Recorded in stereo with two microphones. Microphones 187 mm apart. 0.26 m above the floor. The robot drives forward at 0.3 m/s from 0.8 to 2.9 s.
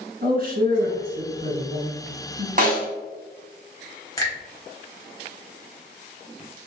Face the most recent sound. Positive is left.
turn(degrees=15)  # may be behind; listen again after turning